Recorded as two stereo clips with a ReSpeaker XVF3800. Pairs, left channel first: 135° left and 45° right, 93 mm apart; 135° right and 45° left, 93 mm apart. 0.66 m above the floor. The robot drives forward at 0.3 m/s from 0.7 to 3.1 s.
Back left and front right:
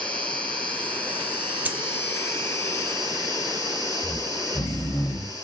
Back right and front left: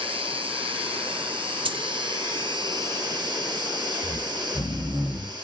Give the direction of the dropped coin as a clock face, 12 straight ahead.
11 o'clock.